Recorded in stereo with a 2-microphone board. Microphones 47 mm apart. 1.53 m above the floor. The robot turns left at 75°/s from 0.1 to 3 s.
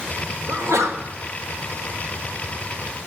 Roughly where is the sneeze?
Ahead right.